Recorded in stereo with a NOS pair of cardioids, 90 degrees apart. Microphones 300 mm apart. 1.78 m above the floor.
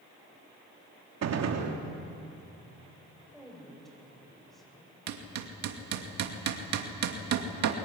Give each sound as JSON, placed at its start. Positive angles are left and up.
{"t": 1.2, "sound": "a gunshot", "azimuth_deg": -65, "distance_m": 3.0}
{"t": 3.3, "sound": "a woman speaking", "azimuth_deg": 0, "distance_m": 9.5}
{"t": 5.1, "sound": "hammering", "azimuth_deg": -65, "distance_m": 2.5}